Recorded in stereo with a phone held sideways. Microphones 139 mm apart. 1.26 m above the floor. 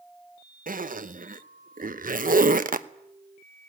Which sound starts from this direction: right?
A zipper, at 0.7 s.